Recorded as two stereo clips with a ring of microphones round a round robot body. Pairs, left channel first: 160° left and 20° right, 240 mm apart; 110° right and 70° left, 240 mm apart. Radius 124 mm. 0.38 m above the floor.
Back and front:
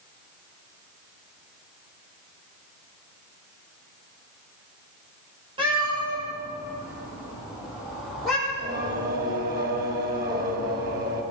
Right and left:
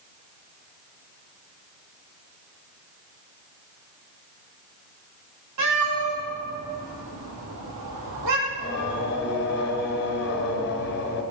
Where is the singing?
70° right, 2 m.